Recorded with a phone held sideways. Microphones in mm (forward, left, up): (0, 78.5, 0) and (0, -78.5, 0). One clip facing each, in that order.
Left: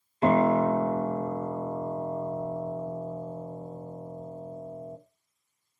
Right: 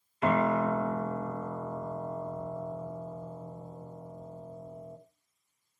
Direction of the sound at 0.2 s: 30° left (ahead or behind).